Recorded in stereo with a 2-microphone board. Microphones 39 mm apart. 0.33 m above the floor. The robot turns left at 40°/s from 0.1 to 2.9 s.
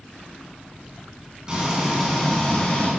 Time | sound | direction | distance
1.5 | frying | 155° right | 3 m